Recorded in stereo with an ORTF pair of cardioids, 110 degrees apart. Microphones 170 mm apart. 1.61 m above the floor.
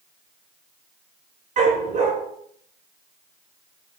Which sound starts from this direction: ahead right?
A dog barking, at 1.6 s.